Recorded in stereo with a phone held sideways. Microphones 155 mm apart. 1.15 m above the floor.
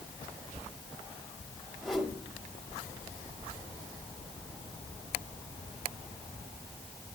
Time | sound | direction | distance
1.8 | a whoosh | centre (ahead or behind) | 1.8 m